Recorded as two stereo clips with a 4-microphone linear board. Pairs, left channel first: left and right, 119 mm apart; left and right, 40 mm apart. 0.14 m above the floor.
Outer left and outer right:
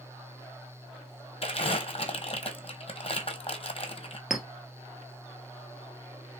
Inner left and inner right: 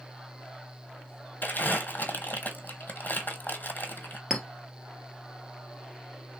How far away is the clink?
About 1.5 m.